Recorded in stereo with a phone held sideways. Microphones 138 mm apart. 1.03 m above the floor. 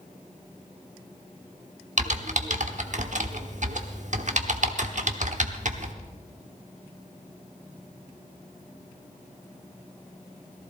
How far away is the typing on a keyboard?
About 1.0 m.